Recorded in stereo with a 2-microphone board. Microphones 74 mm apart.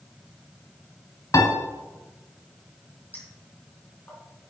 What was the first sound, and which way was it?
A piano, 55° left (ahead or behind).